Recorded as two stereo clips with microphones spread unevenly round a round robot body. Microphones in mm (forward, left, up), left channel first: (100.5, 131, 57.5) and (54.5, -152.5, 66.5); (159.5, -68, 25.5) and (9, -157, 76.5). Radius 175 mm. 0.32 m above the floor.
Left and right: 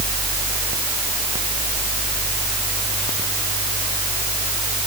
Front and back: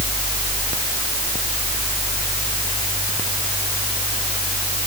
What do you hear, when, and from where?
Only background noise.